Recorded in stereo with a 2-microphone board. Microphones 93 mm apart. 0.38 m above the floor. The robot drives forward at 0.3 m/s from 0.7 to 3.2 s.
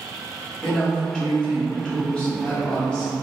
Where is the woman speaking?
10° left (ahead or behind), 1.0 m.